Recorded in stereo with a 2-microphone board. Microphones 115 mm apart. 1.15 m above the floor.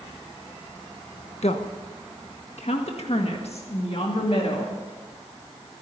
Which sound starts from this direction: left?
A woman speaking, at 1.4 s.